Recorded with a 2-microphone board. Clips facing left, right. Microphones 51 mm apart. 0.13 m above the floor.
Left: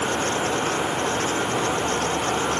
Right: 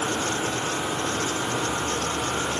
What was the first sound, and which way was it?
Only background noise.